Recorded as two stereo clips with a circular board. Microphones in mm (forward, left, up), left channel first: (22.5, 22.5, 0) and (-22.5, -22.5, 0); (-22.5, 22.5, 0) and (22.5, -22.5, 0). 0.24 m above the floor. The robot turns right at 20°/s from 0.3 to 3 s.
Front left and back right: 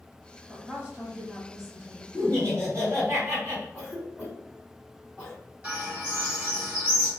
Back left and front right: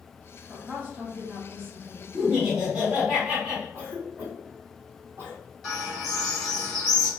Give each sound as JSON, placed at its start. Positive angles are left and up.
{"t": 0.5, "sound": "a woman speaking", "azimuth_deg": -85, "distance_m": 1.0}
{"t": 2.1, "sound": "laughter", "azimuth_deg": -135, "distance_m": 1.9}
{"t": 3.7, "sound": "a cough", "azimuth_deg": -55, "distance_m": 1.9}
{"t": 5.6, "sound": "a bird", "azimuth_deg": -145, "distance_m": 1.6}